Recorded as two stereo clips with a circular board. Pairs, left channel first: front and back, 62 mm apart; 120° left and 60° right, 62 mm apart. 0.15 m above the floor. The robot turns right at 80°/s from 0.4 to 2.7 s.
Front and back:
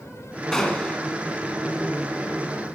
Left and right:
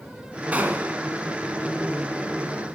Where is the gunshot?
70° right, 1.5 m; by 1.0 s 35° right, 1.5 m.